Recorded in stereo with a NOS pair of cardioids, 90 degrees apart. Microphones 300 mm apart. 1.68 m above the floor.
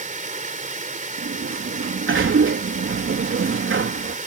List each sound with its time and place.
0.0 s running water: 25° right
1.2 s a sliding door: 45° right